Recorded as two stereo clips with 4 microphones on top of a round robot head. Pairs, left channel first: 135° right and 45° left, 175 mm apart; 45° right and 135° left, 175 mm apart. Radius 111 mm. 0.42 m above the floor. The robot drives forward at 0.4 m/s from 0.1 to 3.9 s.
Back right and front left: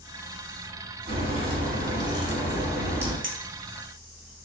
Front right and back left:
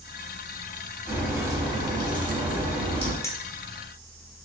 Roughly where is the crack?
Ahead left.